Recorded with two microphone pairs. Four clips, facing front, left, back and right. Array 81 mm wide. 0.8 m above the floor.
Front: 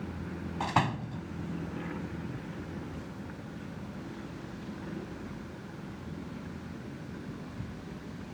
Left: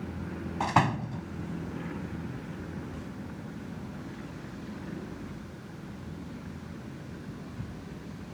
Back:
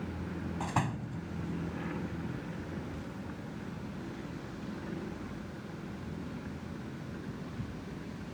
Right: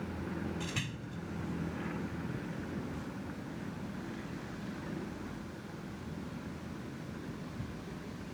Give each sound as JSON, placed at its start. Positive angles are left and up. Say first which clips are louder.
{"t": 0.6, "sound": "a door slam", "louder": "left 15 dB, front 6 dB", "azimuth_deg": 70}